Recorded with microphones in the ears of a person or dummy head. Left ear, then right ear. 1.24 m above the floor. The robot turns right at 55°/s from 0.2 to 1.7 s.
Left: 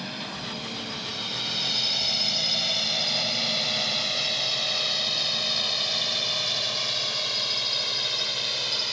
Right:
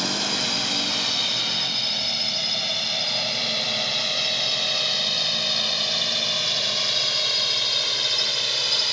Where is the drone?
85° right; by 8.9 s 25° right (ahead or behind).